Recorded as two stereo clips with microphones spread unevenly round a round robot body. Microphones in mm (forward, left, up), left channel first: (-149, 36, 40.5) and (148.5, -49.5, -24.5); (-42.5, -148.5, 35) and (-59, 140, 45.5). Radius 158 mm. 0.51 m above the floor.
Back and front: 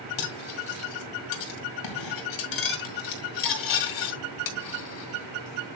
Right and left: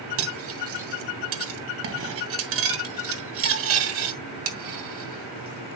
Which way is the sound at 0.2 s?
135° left.